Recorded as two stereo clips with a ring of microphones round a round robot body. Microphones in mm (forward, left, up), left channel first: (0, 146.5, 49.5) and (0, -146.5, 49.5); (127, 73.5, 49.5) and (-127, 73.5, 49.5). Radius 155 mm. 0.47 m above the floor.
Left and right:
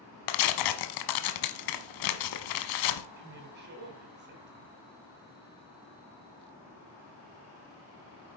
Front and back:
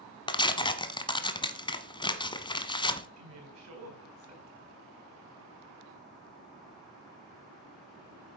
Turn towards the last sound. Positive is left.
turn(degrees=-145)